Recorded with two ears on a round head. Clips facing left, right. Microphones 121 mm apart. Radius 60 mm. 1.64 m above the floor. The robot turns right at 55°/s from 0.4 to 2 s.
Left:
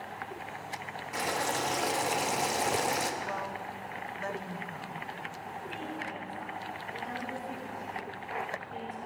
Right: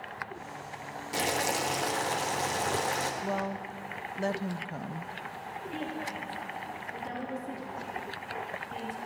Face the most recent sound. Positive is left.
turn(degrees=-55)  # may be behind; listen again after turning